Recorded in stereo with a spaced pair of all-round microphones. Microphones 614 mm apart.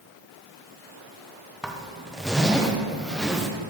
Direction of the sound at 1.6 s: Centre (ahead or behind).